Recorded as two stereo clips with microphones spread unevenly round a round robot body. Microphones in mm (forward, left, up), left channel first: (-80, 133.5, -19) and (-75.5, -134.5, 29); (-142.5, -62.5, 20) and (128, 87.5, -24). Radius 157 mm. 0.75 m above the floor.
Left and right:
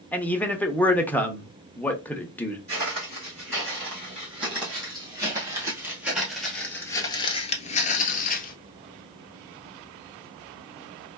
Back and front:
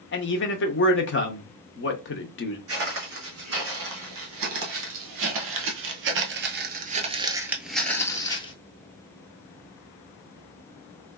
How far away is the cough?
No cough in this recording.